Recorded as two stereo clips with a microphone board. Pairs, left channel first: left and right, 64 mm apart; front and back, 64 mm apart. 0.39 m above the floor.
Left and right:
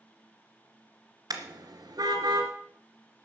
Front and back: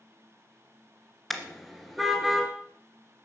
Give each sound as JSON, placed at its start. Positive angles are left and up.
{"t": 1.3, "sound": "a car horn", "azimuth_deg": -90, "distance_m": 2.0}